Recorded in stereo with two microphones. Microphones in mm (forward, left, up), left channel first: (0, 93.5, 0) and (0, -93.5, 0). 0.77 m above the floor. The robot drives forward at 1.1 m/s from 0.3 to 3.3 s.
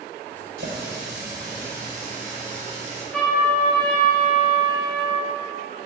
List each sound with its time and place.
0.6 s a running tap: 85° right, 2.5 m; by 3.0 s 40° right (ahead or behind), 3.5 m
3.1 s a trumpet: 5° left (ahead or behind), 2.5 m